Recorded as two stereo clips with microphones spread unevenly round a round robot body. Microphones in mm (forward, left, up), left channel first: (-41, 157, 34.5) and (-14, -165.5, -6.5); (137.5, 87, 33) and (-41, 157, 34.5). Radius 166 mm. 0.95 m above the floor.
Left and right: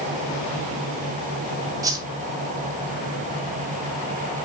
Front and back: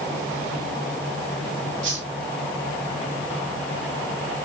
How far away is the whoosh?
About 1.8 m.